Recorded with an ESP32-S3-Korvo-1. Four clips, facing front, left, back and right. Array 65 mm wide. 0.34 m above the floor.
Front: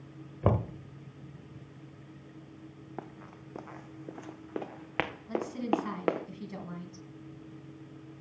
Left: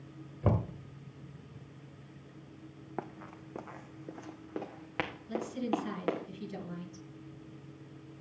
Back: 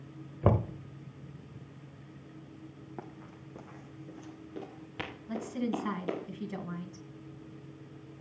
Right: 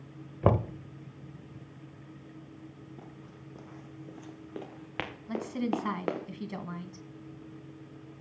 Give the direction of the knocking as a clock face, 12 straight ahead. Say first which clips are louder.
Right 6 dB, back 1 dB; 3 o'clock.